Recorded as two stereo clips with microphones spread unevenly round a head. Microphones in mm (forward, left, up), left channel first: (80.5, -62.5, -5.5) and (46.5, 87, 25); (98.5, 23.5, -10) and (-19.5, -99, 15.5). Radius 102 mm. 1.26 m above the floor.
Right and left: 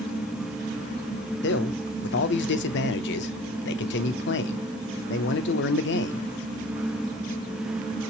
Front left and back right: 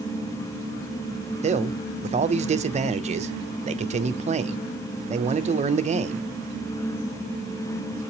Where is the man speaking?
85° right, 0.6 m.